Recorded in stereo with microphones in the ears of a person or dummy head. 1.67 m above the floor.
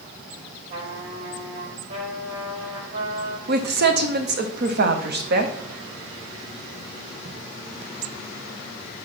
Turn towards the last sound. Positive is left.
turn(degrees=-55)  # may be behind; listen again after turning